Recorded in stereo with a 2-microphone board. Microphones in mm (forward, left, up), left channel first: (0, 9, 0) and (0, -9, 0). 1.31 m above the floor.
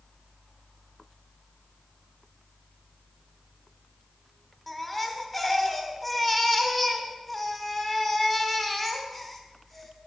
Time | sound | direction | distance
4.7 | a baby crying | centre (ahead or behind) | 1.9 m